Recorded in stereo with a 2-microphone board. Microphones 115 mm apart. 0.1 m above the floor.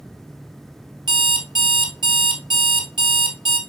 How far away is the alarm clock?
About 1.2 m.